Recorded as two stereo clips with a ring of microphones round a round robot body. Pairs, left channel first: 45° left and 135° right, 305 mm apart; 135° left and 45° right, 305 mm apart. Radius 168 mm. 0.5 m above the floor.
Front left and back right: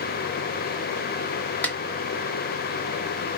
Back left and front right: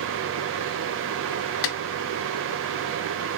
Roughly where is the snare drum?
Behind left.